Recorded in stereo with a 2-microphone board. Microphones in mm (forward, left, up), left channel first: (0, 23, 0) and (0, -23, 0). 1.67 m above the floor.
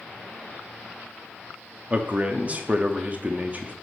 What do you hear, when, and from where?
1.9 s a man speaking: 30° right (ahead or behind), 0.7 m